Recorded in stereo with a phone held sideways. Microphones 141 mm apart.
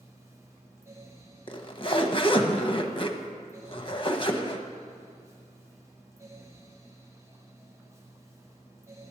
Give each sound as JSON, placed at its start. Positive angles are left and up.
{"t": 0.0, "sound": "a fan", "side_deg": -20, "distance_m": 1.3}
{"t": 1.5, "sound": "a zipper", "side_deg": 35, "distance_m": 0.8}